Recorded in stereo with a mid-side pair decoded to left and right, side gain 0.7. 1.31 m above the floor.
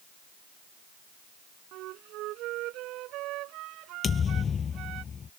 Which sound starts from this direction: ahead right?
A flute, at 1.7 s.